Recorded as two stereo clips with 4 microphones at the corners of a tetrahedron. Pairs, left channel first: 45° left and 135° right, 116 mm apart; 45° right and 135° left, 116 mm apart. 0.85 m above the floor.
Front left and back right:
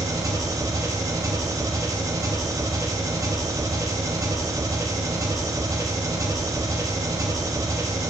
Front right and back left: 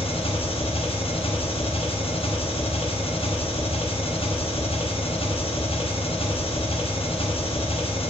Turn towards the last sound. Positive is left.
turn(degrees=-75)